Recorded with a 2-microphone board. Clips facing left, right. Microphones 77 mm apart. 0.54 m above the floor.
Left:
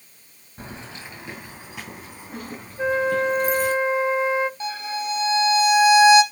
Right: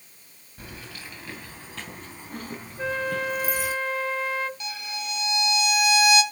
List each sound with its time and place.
0.6 s keys jangling: 30° left (ahead or behind), 2.5 m; by 3.7 s 5° right (ahead or behind), 4.5 m
2.8 s a flute: 20° left (ahead or behind), 0.7 m
4.6 s a violin: 30° left (ahead or behind), 2 m